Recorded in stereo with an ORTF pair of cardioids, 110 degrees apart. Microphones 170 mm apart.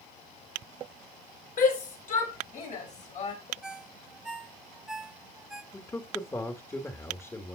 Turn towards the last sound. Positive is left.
turn(degrees=15)